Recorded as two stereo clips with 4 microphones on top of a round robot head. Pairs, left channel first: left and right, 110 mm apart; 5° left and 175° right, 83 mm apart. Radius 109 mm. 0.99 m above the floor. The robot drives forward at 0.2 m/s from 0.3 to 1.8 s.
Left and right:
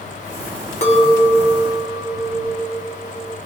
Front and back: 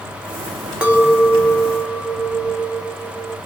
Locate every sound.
0.8 s a clink: 105° left, 1.3 m; by 3.4 s 115° left, 1.3 m